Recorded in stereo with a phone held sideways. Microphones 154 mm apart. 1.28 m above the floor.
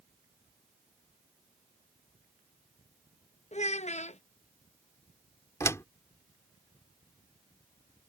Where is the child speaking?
45° left (ahead or behind).